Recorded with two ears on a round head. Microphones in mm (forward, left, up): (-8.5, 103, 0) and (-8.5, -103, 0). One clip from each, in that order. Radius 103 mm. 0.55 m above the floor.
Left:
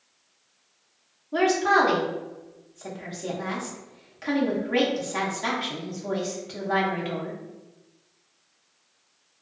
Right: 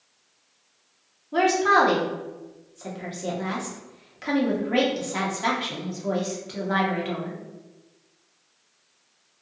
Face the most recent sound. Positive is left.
turn(degrees=-5)  # may be behind; listen again after turning